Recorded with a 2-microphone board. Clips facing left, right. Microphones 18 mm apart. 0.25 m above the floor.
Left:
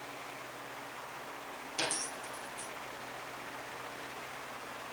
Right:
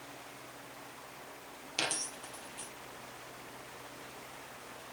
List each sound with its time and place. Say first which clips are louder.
1.8 s a dropped coin: right 1 dB; 30° right (ahead or behind), 3 m